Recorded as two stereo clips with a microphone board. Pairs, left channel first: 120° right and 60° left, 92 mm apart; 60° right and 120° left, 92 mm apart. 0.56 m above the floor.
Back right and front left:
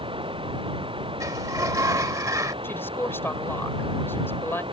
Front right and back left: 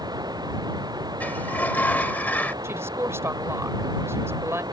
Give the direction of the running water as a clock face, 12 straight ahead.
9 o'clock.